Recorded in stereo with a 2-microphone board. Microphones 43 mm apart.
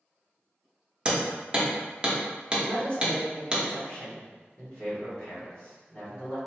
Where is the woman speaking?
35° left (ahead or behind), 1.4 m.